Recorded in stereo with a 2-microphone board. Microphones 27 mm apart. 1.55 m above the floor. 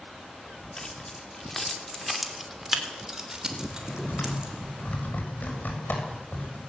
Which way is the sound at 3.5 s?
75° left (ahead or behind).